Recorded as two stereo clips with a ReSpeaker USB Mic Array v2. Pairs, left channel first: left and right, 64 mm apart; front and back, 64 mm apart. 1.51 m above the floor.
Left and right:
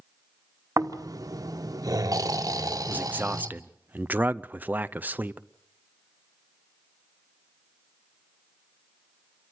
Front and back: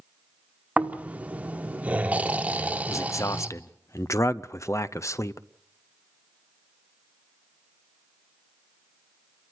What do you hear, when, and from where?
0.8 s snoring: 110° right, 1.2 m
2.9 s a man speaking: 30° right, 0.6 m